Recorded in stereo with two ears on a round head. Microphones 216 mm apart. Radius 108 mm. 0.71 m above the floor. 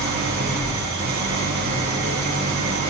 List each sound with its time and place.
0.0 s an engine running: 40° right (ahead or behind), 1.8 m